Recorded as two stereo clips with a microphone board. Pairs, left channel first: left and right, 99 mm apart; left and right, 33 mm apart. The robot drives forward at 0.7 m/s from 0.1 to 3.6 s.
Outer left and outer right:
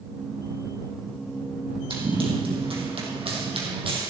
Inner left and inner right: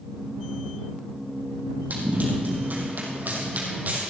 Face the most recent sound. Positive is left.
turn(degrees=-60)  # may be behind; listen again after turning